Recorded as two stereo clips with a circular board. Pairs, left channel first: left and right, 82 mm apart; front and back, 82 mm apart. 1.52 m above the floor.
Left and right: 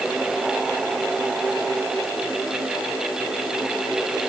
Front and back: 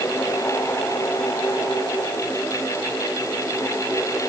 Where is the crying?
I don't hear crying.